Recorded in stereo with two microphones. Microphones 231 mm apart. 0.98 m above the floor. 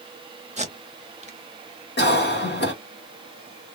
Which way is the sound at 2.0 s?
45° left (ahead or behind).